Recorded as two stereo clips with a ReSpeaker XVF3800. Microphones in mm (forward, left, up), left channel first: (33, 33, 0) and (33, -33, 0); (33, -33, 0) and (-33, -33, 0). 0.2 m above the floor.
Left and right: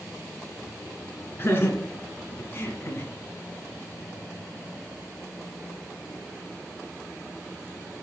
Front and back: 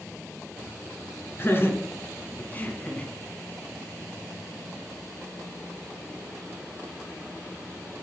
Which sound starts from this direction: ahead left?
Laughter, at 1.4 s.